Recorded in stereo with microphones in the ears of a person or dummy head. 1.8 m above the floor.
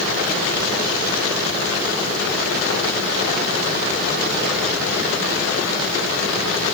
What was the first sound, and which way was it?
Only background noise.